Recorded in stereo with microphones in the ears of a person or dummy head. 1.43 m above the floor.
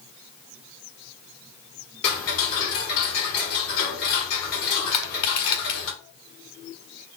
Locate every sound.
2.0 s ticking: 55° left (ahead or behind), 3 m
4.9 s crushing: 35° left (ahead or behind), 3.5 m